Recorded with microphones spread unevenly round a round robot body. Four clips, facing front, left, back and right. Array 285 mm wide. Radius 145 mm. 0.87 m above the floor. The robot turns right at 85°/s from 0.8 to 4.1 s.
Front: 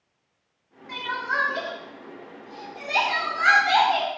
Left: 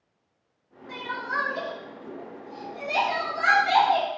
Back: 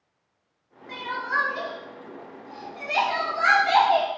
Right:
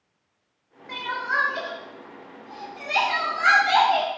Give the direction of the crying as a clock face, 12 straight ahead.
3 o'clock.